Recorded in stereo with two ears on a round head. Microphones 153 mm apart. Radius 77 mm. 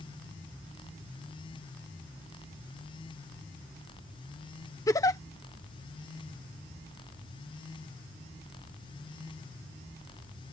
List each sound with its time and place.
4.9 s a giggle: 20° left (ahead or behind)